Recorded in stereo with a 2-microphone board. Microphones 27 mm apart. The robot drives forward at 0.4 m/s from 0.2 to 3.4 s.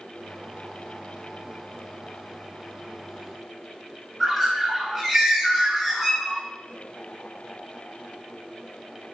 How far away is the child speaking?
I don't hear a child speaking.